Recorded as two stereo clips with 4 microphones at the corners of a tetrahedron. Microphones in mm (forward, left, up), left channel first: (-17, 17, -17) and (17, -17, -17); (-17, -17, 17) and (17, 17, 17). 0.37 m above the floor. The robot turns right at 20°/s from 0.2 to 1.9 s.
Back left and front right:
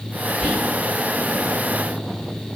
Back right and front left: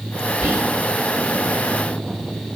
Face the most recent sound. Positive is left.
turn(degrees=-130)